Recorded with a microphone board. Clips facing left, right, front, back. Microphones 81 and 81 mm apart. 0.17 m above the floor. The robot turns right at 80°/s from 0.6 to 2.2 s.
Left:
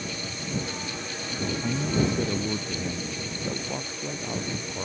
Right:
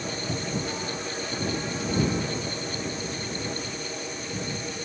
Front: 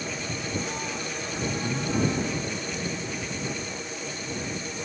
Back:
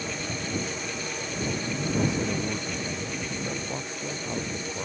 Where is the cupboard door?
95° right; by 0.8 s 80° right.